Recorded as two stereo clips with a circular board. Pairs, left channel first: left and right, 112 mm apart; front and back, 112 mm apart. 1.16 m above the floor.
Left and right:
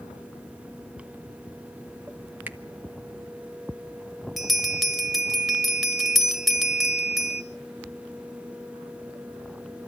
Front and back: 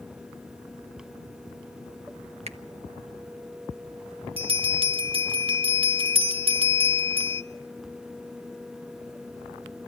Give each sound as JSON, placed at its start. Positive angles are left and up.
{"t": 2.5, "sound": "a finger snap", "azimuth_deg": -165, "distance_m": 1.1}
{"t": 4.4, "sound": "a bell", "azimuth_deg": 180, "distance_m": 1.3}